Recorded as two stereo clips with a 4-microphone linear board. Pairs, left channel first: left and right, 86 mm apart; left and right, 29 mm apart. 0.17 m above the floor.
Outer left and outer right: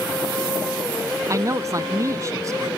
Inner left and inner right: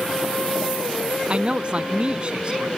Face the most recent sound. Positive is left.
turn(degrees=-40)  # may be behind; listen again after turning